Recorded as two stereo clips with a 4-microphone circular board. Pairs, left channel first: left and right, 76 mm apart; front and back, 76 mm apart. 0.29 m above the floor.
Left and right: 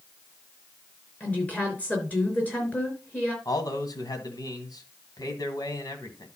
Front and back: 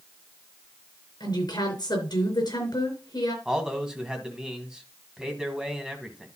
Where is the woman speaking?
20° left, 4.5 m.